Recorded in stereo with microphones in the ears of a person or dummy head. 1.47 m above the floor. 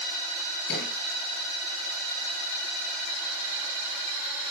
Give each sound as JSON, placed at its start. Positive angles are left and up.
{"t": 0.7, "sound": "a thud", "side_deg": 65, "distance_m": 4.5}